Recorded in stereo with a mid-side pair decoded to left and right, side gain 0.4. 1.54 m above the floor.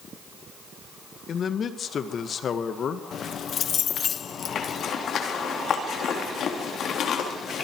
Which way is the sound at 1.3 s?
55° left.